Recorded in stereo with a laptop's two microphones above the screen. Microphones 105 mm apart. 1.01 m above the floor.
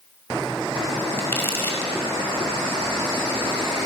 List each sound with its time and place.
1.2 s crumpling: 20° left (ahead or behind), 5.5 m